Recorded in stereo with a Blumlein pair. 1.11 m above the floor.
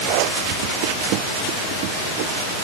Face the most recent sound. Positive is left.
No sound to turn to.